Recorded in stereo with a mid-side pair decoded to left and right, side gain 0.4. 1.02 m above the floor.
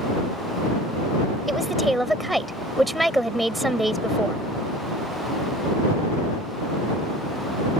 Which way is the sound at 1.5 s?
5° right.